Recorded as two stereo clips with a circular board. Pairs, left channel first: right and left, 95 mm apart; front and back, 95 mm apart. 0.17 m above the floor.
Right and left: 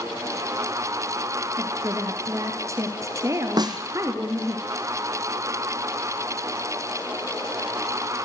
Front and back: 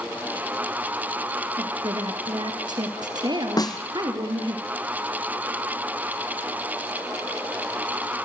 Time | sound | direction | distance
1.6 | a woman speaking | 145° left | 3.5 m
3.6 | a snare drum | 45° left | 1.9 m